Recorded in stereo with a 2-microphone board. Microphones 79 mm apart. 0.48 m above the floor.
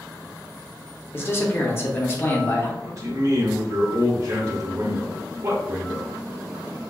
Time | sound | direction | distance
1.1 | a man speaking | 30° left (ahead or behind) | 0.9 m
2.8 | a man speaking | 45° right (ahead or behind) | 1.5 m